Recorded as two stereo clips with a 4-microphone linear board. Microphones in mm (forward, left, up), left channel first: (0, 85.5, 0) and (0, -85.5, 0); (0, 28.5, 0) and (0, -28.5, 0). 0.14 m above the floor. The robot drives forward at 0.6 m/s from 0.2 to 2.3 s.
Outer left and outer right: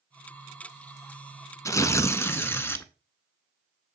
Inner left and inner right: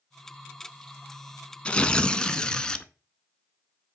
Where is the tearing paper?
20° left (ahead or behind), 0.5 m; by 2.9 s 15° left (ahead or behind), 0.7 m.